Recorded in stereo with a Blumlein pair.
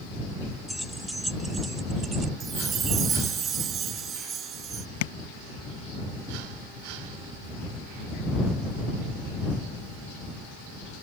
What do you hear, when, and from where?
0.7 s keys jangling: straight ahead; by 2.3 s 20° right
2.4 s a chime: 25° right
5.0 s tapping: 50° left